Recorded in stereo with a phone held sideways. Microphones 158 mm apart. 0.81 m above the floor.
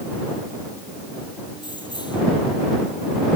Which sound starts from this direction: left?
Keys jangling, at 1.6 s.